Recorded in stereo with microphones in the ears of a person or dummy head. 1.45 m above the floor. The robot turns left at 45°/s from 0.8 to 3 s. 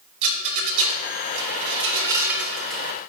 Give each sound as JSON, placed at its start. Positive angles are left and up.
{"t": 0.2, "sound": "a rattle", "side_deg": -65, "distance_m": 2.5}